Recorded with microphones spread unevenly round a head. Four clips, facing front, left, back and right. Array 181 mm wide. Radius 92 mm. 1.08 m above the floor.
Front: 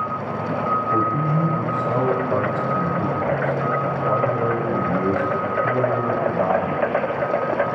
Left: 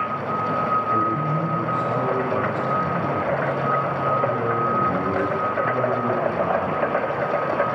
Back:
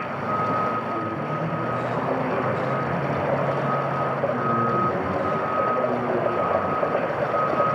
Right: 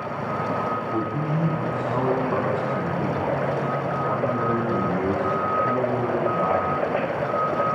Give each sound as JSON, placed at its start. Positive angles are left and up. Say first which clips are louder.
{"t": 0.9, "sound": "a man speaking", "louder": "left 4 dB, front 6 dB", "azimuth_deg": 15, "distance_m": 5.5}